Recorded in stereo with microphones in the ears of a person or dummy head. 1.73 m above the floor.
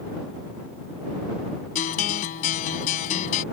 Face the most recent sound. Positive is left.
turn(degrees=45)  # may be behind; listen again after turning